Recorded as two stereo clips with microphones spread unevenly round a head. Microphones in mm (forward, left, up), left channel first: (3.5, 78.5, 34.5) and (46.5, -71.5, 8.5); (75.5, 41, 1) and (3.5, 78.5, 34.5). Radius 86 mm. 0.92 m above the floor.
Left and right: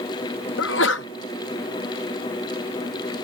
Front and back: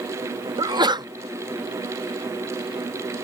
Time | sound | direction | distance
0.6 | a sneeze | 115° left | ?